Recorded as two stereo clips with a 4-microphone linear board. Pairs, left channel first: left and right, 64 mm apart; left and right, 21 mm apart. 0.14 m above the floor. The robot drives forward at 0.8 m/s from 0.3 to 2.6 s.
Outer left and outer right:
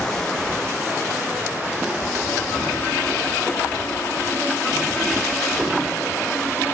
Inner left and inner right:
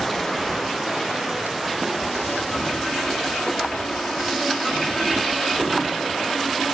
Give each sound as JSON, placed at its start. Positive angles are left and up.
{"t": 0.0, "sound": "running water", "side_deg": 10, "distance_m": 1.6}